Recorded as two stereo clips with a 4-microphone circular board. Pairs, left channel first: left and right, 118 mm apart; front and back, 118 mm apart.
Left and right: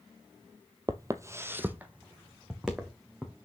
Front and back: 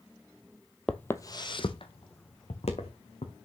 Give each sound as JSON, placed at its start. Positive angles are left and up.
{"t": 0.9, "sound": "footsteps", "azimuth_deg": -80, "distance_m": 0.7}